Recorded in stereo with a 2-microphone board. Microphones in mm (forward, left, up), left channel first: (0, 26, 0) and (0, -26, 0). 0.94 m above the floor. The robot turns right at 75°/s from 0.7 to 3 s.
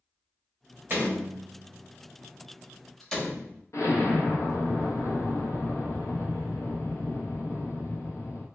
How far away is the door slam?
About 0.8 m.